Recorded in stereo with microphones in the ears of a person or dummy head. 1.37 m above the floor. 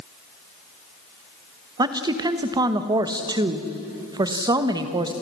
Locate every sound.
1.8 s a woman speaking: 20° right (ahead or behind), 1.2 m